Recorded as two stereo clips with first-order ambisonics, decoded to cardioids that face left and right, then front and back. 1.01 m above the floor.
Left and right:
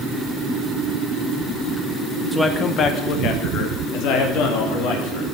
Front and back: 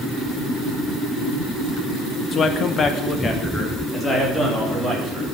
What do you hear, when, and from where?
2.3 s a man speaking: 5° left, 0.8 m; by 5.2 s 80° left, 3 m